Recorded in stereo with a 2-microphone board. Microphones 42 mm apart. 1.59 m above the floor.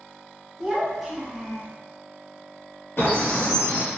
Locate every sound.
0.6 s a child speaking: 5° right (ahead or behind), 0.9 m; by 1.7 s centre (ahead or behind), 0.7 m
3.0 s a bird: 60° left (ahead or behind), 1.0 m